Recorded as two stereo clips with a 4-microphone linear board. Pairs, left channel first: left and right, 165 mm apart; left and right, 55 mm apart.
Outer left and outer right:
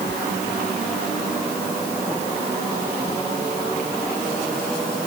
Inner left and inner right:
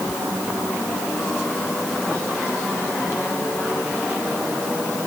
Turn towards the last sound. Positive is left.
No sound to turn to.